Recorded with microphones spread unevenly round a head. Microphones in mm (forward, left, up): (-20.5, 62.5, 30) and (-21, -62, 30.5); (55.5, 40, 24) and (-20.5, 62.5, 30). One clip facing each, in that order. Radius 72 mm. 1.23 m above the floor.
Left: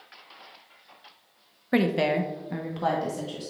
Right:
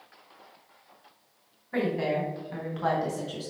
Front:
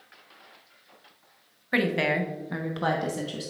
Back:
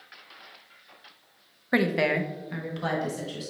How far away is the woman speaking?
About 1.1 m.